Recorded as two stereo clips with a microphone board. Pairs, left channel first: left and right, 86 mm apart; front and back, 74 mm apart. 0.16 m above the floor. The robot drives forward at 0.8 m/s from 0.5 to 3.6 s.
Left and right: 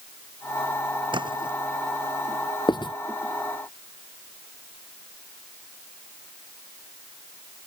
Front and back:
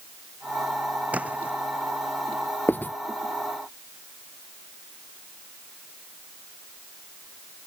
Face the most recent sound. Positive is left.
turn(degrees=70)